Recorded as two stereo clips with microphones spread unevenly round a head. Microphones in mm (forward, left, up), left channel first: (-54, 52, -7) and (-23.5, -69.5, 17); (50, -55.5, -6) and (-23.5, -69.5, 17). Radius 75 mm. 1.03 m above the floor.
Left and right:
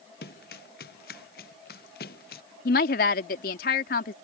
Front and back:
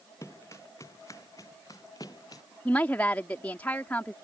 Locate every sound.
0.2 s running footsteps: 85° left; by 2.4 s 80° left
2.6 s a woman speaking: 90° left